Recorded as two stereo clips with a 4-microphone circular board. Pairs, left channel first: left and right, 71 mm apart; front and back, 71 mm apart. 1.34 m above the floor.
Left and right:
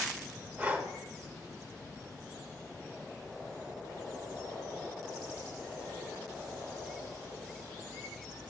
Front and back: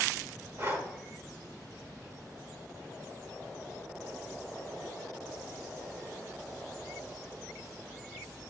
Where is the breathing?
145° right, 1.3 m.